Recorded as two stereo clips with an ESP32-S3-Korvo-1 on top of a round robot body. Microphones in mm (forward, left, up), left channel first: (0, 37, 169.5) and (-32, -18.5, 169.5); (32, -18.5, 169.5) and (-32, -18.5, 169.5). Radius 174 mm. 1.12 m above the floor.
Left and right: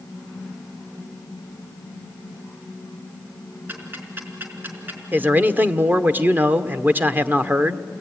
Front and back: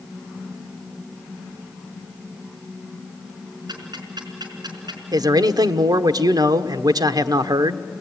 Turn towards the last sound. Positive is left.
turn(degrees=180)